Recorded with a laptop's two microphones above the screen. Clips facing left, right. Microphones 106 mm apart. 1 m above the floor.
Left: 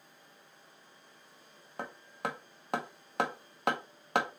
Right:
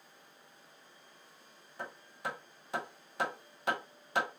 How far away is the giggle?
No giggle in this recording.